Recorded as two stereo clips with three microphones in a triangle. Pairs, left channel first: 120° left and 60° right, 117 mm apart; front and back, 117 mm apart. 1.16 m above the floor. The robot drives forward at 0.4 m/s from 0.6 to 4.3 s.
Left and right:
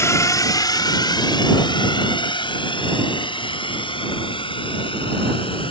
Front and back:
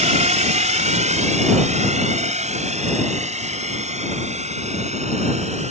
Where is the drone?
175° right; by 5.7 s 160° left.